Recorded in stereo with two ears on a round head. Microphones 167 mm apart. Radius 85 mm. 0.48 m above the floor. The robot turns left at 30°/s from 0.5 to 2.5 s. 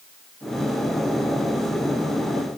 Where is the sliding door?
I don't hear a sliding door.